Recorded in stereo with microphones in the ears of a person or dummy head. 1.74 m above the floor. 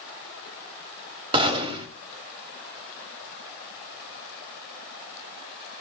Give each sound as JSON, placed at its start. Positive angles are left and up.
{"t": 1.3, "sound": "a gunshot", "side_deg": -30, "distance_m": 3.0}